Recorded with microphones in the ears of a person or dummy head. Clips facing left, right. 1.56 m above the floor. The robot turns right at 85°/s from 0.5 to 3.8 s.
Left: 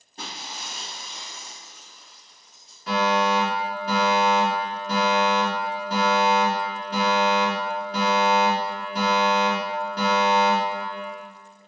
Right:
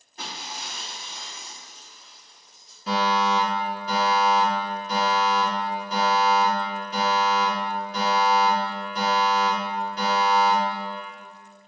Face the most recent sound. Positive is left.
turn(degrees=40)